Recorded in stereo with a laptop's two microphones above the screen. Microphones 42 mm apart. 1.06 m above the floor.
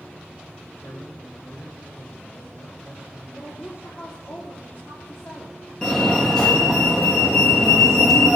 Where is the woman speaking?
55° left (ahead or behind), 2.5 m.